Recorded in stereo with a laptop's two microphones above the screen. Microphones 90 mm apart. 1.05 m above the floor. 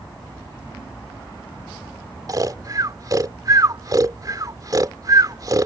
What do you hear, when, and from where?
2.3 s snoring: 40° right (ahead or behind)